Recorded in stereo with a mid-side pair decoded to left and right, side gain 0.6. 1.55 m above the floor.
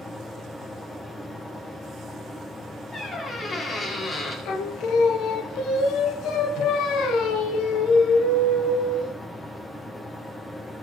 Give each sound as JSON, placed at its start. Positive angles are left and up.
{"t": 0.0, "sound": "a fan", "azimuth_deg": 15, "distance_m": 1.4}
{"t": 2.9, "sound": "a squeak", "azimuth_deg": 35, "distance_m": 2.5}
{"t": 4.5, "sound": "singing", "azimuth_deg": 60, "distance_m": 1.0}